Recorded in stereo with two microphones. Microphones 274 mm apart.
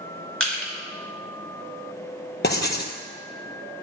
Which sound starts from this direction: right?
Crushing, at 0.4 s.